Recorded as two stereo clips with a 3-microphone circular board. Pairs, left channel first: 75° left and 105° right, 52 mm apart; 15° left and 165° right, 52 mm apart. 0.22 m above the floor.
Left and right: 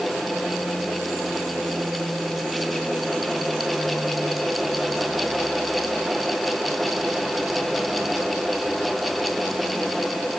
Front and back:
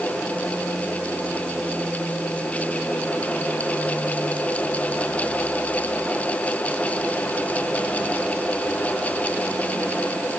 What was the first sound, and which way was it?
Only background noise.